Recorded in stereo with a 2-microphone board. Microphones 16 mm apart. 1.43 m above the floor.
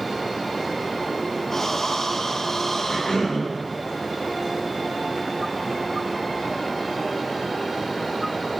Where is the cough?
70° left (ahead or behind), 4 m.